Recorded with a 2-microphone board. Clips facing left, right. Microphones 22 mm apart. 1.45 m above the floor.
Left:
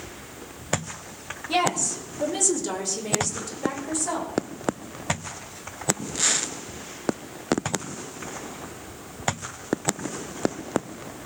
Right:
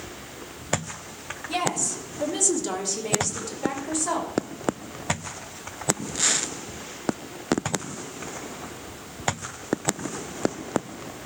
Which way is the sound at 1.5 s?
15° left (ahead or behind).